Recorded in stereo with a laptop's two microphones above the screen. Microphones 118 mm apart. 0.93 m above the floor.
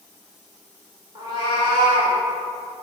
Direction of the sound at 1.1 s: 40° right (ahead or behind).